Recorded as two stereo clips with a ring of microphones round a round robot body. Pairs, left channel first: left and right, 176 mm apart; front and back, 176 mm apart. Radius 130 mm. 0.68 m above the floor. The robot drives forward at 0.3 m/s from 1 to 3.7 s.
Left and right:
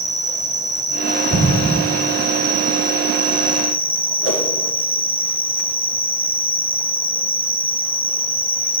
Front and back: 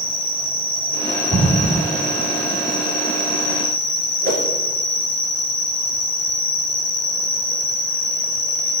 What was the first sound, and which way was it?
An insect, 20° right.